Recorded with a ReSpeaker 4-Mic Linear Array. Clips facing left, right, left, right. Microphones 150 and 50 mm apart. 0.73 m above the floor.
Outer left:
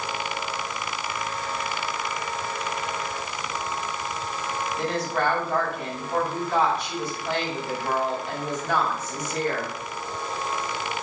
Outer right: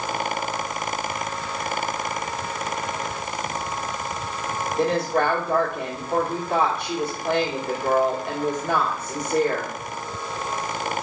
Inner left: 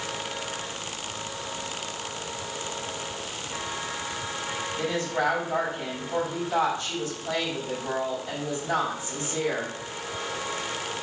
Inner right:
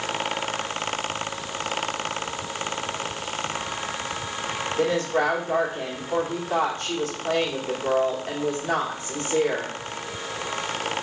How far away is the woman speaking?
About 1.9 m.